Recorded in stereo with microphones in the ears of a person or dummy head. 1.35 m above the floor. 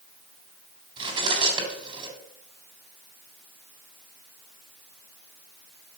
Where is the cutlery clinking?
25° right (ahead or behind), 3 m.